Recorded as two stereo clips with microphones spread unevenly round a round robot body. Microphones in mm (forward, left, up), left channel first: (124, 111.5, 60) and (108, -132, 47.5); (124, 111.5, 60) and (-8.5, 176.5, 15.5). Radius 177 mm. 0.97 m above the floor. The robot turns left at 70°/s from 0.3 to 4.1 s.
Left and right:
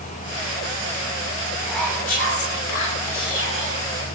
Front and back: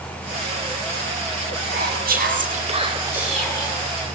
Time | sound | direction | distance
1.6 | whispering | 175° right | 3 m